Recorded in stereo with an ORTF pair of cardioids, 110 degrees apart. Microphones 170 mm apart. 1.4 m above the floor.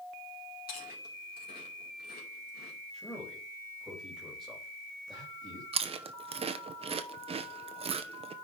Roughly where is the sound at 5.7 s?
Ahead right.